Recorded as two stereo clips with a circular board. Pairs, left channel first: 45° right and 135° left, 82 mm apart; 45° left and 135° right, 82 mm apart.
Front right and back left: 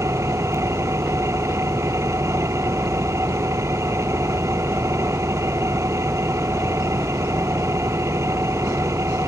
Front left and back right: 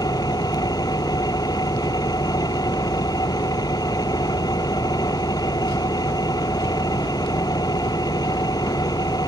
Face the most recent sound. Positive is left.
turn(degrees=80)